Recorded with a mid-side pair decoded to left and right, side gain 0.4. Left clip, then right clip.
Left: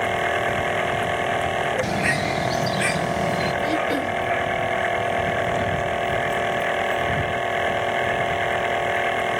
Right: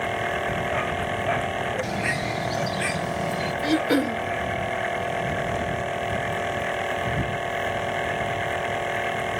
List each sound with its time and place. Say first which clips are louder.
0.0 s a machine running: left 4 dB; 30° left
1.8 s a bird: left 4 dB; 30° left
3.6 s throat clearing: even; 50° right